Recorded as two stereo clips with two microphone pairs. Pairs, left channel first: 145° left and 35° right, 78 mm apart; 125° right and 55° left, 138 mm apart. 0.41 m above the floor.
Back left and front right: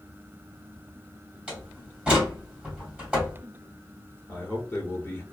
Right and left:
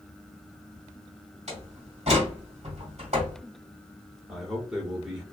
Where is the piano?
No piano in this recording.